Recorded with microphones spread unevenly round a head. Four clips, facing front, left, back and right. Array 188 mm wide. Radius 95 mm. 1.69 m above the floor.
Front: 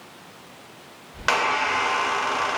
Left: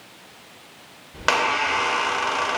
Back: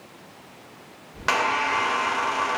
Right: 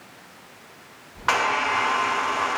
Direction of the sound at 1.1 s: 80° left.